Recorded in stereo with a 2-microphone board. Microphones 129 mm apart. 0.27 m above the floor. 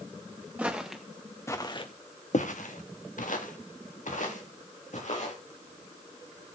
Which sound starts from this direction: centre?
Footsteps, at 0.6 s.